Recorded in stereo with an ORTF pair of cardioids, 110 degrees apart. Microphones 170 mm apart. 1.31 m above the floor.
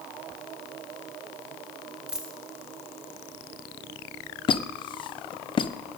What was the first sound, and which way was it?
A dropped coin, 5° right.